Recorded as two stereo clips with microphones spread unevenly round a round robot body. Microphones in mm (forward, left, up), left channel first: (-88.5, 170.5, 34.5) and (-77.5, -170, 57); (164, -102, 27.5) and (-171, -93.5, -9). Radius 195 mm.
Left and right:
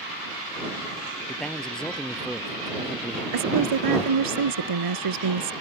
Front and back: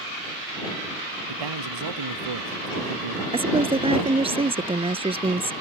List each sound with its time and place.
1.3 s a man speaking: straight behind
3.3 s a woman speaking: 105° right